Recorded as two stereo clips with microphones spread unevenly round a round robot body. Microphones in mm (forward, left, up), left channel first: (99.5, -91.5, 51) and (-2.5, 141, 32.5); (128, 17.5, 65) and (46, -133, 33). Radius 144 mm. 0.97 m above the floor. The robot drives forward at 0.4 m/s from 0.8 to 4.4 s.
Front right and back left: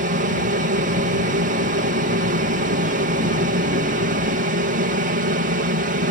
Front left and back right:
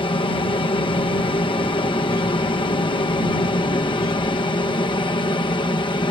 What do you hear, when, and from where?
0.0 s an aircraft: 120° left